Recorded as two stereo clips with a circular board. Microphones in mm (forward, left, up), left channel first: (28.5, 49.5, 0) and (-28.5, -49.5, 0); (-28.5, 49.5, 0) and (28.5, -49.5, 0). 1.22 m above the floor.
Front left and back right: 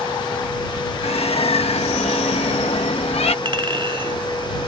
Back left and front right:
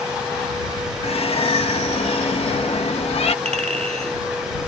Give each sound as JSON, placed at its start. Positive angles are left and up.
{"t": 1.0, "sound": "a bird", "azimuth_deg": 90}
{"t": 3.5, "sound": "a clink", "azimuth_deg": -75}